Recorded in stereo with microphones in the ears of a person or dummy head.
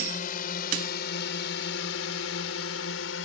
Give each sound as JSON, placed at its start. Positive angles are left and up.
{"t": 0.0, "sound": "a drone", "side_deg": 45}